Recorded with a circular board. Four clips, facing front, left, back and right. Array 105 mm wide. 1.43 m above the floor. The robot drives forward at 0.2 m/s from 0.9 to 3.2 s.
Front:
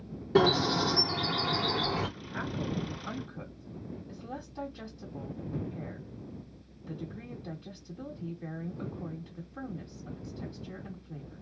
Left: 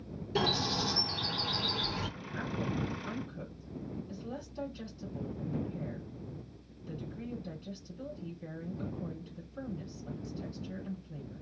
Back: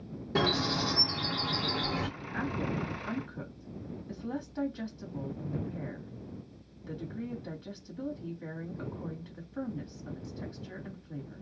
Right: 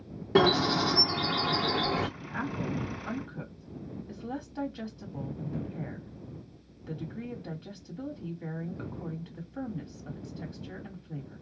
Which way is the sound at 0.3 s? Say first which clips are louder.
Right 9 dB, front 5 dB; 80° right.